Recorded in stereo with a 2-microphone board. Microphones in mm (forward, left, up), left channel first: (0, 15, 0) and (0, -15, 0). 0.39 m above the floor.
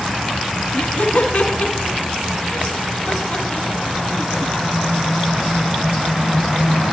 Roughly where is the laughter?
Left.